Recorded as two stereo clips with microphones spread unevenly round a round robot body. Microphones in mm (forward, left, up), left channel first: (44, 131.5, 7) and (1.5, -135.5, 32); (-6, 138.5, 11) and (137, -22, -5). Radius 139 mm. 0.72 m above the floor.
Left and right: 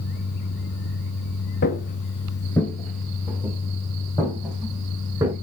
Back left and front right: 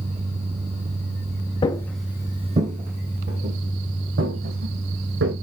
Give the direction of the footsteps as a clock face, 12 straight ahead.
8 o'clock.